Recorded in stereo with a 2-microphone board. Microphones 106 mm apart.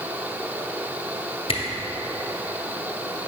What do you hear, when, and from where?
1.5 s a camera shutter: 55° left (ahead or behind), 1.8 m